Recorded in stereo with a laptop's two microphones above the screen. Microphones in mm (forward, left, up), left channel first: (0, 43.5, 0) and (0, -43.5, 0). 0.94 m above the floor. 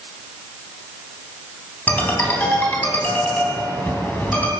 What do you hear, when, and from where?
1.9 s a ringtone: 20° left (ahead or behind), 3 m